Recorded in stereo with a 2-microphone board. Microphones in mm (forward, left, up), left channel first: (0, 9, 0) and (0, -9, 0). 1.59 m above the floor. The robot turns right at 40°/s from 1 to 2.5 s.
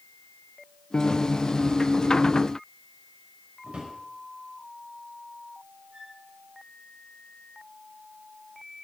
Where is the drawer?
80° right, 5 m.